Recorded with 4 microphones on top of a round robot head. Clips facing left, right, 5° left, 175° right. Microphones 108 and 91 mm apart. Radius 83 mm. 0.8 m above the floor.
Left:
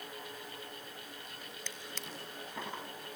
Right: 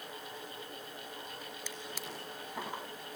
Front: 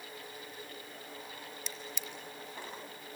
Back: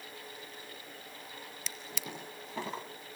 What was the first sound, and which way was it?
A drawer, 175° right.